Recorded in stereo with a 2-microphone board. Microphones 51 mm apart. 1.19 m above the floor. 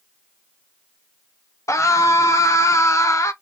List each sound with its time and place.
1.7 s a scream: 80° left, 0.6 m